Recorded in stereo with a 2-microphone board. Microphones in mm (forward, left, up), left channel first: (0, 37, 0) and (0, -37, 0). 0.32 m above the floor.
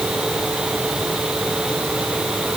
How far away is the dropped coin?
I don't hear a dropped coin.